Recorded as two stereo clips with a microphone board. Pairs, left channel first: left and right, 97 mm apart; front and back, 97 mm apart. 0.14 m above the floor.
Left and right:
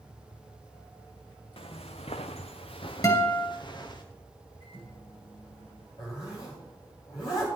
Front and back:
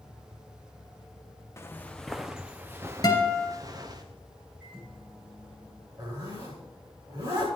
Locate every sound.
1.6 s footsteps: 65° left, 0.8 m; by 4.0 s 135° left, 1.7 m
3.0 s a guitar: 45° left, 2.5 m
4.6 s a microwave: 100° left, 7 m
6.0 s a zipper: 125° left, 6.5 m